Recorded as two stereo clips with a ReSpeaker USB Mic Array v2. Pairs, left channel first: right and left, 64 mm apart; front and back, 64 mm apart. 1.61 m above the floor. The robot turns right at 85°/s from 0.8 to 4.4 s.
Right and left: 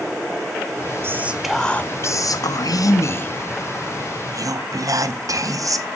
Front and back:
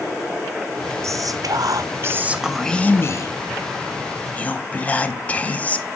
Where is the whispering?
140° left, 0.6 m; by 5.9 s 65° left, 0.6 m.